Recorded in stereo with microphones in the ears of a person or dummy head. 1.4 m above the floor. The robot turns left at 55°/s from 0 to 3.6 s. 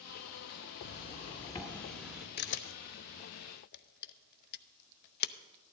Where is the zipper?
60° left, 1.9 m; by 2.3 s 20° right, 1.9 m.